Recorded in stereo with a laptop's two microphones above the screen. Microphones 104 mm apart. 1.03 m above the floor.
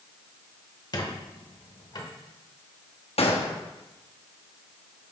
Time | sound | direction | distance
0.9 | a squeak | 40° left (ahead or behind) | 0.9 m
3.2 | a gunshot | 70° left (ahead or behind) | 0.8 m